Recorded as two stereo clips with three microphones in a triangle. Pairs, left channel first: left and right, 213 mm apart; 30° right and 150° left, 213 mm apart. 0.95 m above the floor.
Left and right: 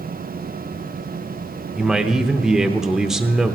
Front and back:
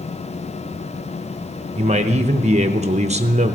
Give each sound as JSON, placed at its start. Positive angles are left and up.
{"t": 1.8, "sound": "a man speaking", "azimuth_deg": -175, "distance_m": 0.7}